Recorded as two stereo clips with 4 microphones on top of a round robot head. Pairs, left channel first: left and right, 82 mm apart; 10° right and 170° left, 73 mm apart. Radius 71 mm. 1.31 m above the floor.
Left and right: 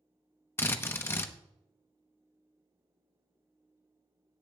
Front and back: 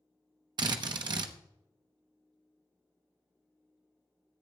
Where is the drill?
150° left, 0.9 m.